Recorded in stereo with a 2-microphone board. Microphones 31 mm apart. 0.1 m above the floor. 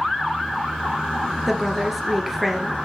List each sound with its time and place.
1.5 s a woman speaking: 10° right (ahead or behind), 1.8 m